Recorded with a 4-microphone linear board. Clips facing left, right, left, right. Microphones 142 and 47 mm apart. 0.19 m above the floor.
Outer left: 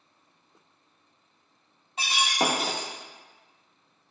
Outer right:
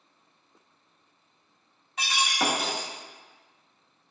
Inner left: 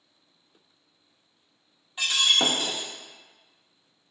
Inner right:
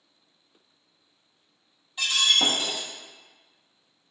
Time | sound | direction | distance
2.0 | breaking glass | 25° left (ahead or behind) | 0.8 m